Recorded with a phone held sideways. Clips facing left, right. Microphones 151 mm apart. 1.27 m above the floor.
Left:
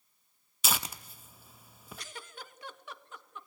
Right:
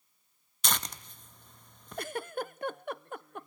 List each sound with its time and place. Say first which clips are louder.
0.6 s tearing paper: even; 5° left (ahead or behind), 0.7 m
2.0 s a giggle: right 15 dB; 55° right (ahead or behind), 0.5 m